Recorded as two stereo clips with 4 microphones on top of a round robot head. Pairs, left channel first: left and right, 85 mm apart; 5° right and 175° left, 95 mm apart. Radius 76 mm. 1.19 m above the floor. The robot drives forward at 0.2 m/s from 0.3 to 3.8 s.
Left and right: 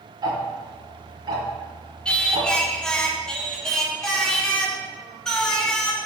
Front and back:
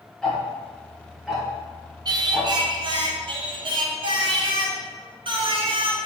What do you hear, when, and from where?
0.2 s ticking: 85° right, 0.9 m; by 2.5 s 115° right, 1.0 m
2.0 s singing: 165° left, 0.5 m; by 6.1 s 175° left, 0.8 m